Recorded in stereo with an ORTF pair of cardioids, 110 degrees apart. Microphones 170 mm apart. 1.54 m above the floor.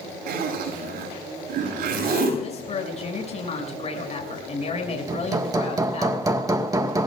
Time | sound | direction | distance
0.3 | a zipper | 60° right | 8 m
2.4 | a woman speaking | 35° left | 7 m
5.1 | hammering | 20° right | 1.7 m